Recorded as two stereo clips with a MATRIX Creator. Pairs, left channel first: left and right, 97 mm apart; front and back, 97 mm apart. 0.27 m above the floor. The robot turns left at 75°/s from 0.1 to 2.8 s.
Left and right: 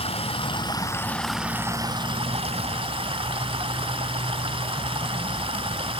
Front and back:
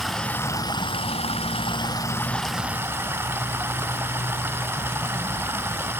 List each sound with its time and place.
0.0 s running water: 90° left; by 6.0 s 110° right